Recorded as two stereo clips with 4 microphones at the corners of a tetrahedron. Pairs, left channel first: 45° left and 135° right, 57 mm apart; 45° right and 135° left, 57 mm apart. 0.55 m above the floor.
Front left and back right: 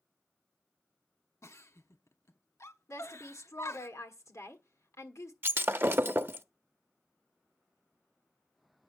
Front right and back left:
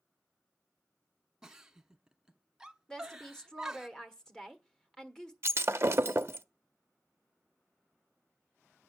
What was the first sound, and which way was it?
A giggle, 55° left.